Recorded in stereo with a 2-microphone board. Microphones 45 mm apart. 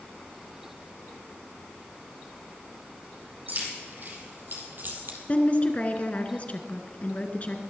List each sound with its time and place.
3.5 s keys jangling: 50° right (ahead or behind), 3.5 m
5.3 s a woman speaking: 35° left (ahead or behind), 1.5 m